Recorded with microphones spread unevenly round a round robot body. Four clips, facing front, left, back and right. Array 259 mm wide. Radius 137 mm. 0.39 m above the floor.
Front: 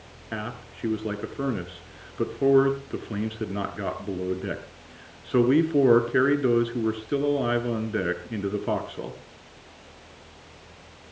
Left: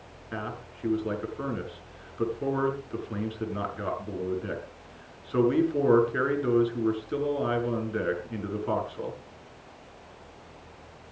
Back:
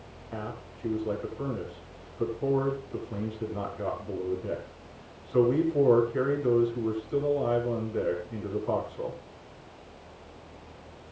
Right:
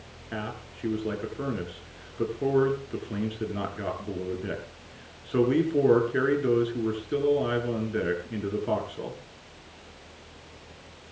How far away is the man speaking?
About 6.5 m.